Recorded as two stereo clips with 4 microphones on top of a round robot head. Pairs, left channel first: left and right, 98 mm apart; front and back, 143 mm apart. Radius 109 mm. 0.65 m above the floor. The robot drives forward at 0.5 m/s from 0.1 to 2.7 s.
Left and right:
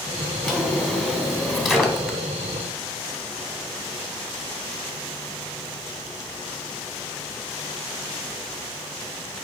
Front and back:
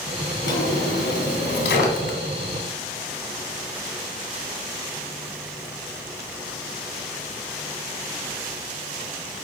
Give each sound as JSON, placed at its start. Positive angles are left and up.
{"t": 0.4, "sound": "a drawer", "azimuth_deg": 0, "distance_m": 1.9}